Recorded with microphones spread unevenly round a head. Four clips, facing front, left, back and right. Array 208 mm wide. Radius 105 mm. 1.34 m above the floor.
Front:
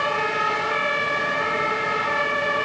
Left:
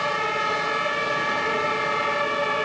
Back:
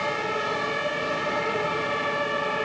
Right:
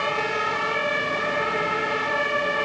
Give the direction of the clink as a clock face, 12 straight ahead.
I don't hear a clink.